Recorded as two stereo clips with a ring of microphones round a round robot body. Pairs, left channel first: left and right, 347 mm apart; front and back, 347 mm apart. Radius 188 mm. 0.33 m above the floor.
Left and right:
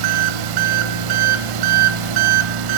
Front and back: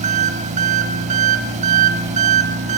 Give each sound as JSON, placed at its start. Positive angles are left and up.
{"t": 0.0, "sound": "an engine running", "azimuth_deg": -110, "distance_m": 0.8}